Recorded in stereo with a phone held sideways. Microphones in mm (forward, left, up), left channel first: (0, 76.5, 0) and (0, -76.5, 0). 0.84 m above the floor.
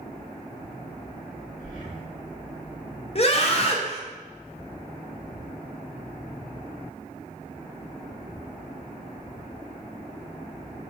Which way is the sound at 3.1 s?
45° left (ahead or behind).